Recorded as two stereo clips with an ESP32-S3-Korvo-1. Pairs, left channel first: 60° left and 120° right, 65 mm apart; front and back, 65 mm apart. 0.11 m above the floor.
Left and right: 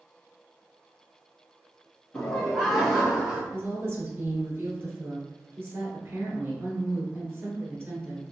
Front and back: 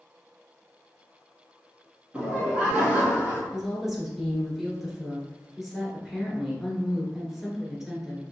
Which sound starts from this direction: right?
A woman speaking, at 3.5 s.